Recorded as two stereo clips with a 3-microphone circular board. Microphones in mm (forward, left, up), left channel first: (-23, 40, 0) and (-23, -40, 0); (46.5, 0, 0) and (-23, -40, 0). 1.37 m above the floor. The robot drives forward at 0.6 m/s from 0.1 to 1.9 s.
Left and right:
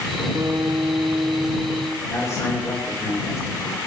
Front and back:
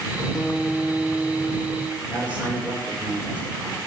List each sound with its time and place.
0.3 s a guitar: 55° right, 1.0 m; by 2.0 s 115° right, 0.9 m
2.1 s a man speaking: 140° left, 4.5 m